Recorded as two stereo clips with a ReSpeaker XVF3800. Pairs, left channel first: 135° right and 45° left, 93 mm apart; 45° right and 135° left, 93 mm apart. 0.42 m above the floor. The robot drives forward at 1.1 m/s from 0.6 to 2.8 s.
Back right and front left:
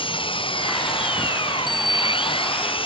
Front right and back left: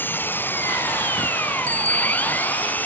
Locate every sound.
0.0 s an engine running: 115° right
1.7 s a bicycle bell: 165° right